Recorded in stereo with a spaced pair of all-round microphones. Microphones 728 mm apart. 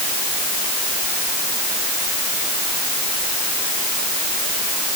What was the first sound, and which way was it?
Only background noise.